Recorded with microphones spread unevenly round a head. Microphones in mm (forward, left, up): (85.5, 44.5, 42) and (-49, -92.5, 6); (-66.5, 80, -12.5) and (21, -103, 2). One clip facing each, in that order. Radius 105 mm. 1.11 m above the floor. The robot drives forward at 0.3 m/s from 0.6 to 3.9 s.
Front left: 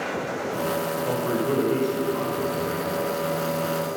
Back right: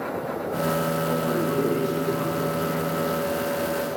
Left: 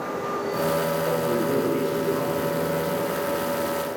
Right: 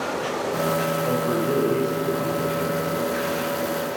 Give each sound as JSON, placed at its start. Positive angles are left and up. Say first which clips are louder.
{"t": 1.1, "sound": "a man speaking", "louder": "front left 3 dB, right 2 dB", "azimuth_deg": 15, "distance_m": 6.0}